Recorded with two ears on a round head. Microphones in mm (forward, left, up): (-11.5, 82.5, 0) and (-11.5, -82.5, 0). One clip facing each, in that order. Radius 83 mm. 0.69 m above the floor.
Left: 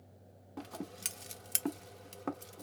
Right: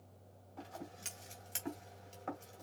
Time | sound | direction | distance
0.6 | scissors | 60° left (ahead or behind) | 0.8 m